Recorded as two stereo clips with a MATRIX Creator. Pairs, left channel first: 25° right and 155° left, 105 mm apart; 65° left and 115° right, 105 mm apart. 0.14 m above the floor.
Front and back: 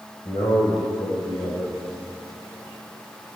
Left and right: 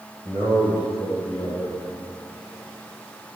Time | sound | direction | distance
0.2 | a man speaking | 50° right | 3 m